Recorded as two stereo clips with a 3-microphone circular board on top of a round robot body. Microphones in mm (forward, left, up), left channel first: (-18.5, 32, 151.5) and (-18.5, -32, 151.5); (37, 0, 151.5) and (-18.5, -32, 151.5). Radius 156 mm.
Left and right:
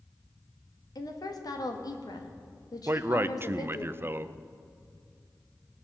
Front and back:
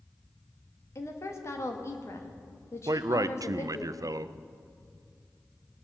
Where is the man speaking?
140° right, 0.6 m.